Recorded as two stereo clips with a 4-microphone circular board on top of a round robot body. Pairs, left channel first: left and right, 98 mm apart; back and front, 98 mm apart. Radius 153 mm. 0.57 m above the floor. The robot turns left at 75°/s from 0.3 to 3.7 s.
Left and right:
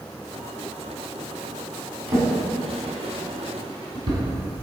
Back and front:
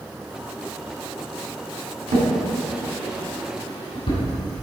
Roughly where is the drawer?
Ahead.